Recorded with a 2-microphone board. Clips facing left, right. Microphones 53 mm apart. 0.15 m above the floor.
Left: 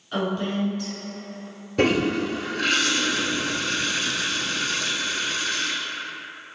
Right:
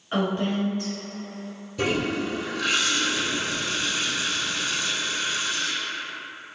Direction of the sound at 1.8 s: 60° left (ahead or behind).